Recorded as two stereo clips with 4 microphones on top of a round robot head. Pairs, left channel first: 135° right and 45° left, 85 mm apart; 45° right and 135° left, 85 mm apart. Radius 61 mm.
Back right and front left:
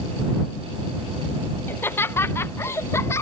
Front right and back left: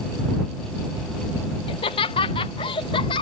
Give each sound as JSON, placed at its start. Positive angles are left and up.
{"t": 1.7, "sound": "laughter", "azimuth_deg": -70}